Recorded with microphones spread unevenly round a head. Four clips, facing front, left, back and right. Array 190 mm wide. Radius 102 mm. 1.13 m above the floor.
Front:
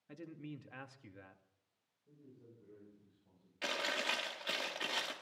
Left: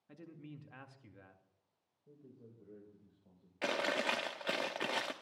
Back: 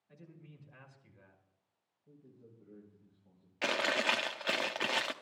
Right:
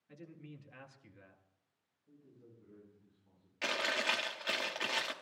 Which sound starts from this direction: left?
A man speaking, at 2.1 s.